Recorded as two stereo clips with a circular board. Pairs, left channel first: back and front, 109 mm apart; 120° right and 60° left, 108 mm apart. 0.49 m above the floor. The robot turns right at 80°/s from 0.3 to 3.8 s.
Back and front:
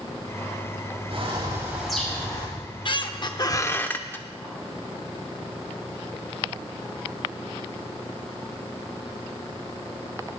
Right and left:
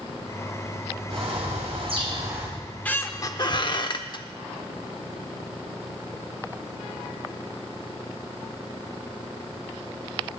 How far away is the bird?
About 3.5 m.